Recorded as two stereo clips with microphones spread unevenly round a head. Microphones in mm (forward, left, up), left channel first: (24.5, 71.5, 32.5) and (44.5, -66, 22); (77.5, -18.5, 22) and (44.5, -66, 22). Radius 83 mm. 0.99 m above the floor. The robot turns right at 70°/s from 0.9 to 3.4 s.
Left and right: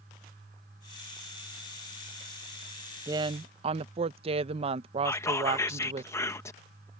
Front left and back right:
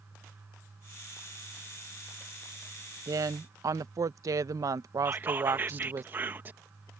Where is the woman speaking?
145° right; by 6.0 s 120° right.